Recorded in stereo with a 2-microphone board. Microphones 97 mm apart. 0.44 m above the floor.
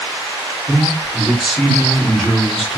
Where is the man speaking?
Centre (ahead or behind), 1.3 m.